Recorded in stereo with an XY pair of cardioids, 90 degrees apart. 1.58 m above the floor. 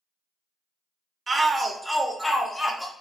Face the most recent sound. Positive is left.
turn(degrees=25)